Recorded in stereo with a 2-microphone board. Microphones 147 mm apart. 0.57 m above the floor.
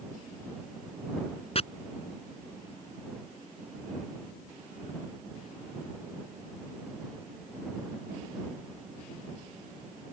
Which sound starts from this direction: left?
Chopping, at 1.6 s.